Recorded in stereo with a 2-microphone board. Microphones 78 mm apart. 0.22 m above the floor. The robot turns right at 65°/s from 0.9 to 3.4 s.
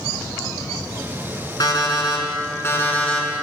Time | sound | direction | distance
1.6 | an alarm clock | 70° left | 1.7 m